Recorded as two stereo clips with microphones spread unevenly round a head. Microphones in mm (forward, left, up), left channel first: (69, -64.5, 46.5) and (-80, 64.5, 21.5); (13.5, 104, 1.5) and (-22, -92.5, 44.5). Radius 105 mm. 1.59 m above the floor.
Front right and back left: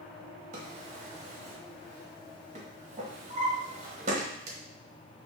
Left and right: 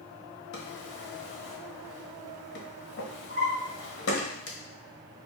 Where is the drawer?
90° left, 1.0 m.